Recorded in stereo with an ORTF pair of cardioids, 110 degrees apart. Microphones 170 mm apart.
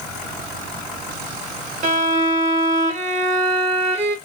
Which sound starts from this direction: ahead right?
A violin, at 1.8 s.